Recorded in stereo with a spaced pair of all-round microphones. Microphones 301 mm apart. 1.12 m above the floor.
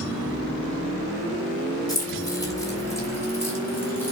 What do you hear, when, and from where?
1.9 s keys jangling: 15° left (ahead or behind), 3.5 m; by 4.1 s 5° left (ahead or behind), 4.5 m